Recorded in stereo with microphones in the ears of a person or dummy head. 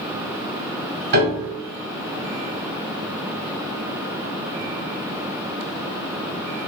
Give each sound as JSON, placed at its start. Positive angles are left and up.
{"t": 1.1, "sound": "a piano", "side_deg": -60, "distance_m": 0.8}